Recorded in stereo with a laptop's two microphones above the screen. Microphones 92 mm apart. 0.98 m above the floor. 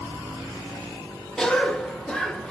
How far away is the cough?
About 0.5 m.